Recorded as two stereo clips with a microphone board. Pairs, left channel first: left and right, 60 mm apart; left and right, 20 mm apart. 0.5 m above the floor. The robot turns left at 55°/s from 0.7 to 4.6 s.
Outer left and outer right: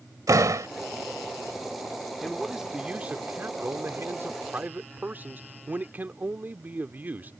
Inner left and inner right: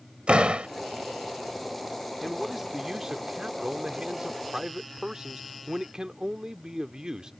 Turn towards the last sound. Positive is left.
turn(degrees=-125)